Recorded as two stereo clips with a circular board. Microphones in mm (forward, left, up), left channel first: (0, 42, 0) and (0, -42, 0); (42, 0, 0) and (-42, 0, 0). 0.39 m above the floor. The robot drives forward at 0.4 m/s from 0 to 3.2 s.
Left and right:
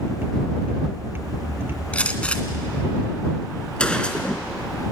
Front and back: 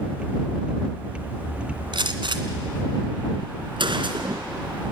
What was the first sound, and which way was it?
A gunshot, 165° left.